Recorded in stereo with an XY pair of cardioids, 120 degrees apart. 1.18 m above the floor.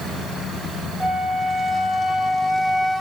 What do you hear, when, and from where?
1.0 s a flute: 5° left, 1.0 m